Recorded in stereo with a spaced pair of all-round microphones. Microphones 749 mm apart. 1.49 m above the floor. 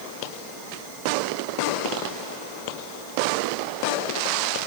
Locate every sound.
Only background noise.